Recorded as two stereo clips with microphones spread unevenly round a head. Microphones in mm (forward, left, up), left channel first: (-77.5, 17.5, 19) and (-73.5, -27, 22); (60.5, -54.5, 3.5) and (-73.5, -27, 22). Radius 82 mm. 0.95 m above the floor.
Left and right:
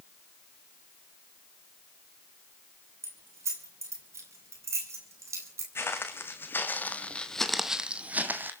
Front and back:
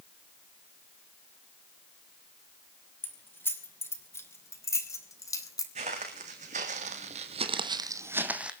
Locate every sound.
3.0 s keys jangling: 90° right, 5 m; by 5.7 s 75° right, 3.5 m
5.8 s footsteps: 120° left, 3 m; by 8.5 s 115° right, 2 m